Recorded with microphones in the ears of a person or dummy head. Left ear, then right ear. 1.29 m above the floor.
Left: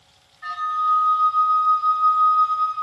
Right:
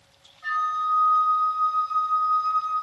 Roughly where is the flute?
Left.